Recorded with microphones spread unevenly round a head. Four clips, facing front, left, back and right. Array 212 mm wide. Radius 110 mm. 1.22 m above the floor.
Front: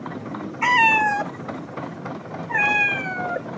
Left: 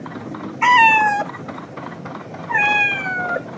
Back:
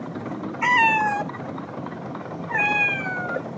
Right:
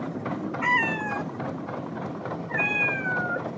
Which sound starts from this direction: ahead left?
A cat meowing, at 0.6 s.